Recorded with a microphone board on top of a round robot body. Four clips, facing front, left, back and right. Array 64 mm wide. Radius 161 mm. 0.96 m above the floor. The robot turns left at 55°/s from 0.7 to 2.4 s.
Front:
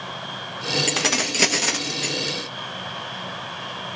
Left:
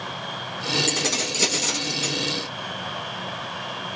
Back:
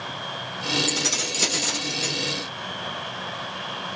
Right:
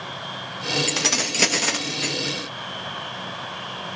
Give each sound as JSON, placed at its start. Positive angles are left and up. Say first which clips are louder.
{"t": 0.9, "sound": "keys jangling", "louder": "right 1 dB, front 4 dB", "azimuth_deg": -10, "distance_m": 0.6}